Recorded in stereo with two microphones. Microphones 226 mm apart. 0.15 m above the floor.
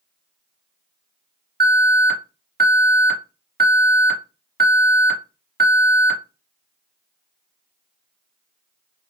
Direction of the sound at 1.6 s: 45° right (ahead or behind).